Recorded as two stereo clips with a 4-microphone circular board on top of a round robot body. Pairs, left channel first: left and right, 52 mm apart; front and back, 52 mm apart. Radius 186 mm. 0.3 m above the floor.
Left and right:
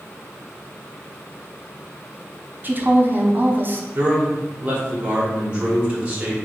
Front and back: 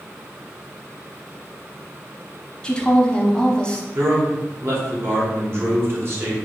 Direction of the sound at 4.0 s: 150° right.